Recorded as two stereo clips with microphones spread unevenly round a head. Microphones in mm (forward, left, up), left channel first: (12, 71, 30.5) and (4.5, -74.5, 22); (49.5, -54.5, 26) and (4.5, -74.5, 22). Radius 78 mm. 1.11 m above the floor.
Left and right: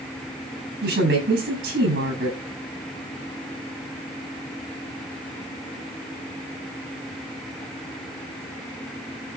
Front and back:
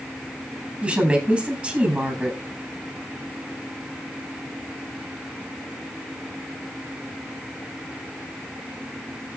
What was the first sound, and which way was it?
A woman speaking, 90° right.